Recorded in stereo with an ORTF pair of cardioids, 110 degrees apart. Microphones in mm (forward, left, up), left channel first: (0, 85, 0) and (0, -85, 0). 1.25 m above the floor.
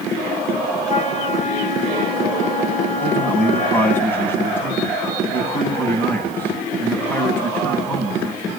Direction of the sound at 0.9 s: 45° left.